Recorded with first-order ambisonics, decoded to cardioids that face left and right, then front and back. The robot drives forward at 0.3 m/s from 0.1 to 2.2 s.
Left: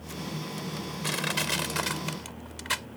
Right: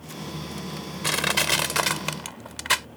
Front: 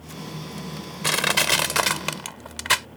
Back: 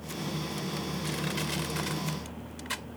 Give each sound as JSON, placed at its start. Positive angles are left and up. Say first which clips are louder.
{"t": 1.0, "sound": "crushing", "louder": "right 7 dB, front 17 dB", "azimuth_deg": -25}